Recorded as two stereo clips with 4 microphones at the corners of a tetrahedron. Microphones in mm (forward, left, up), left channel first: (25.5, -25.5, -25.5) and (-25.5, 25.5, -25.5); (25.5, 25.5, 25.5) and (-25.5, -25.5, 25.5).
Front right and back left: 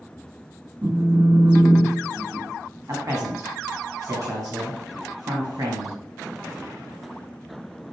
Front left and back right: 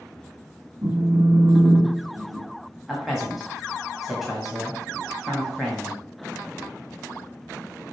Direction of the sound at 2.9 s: 135° left.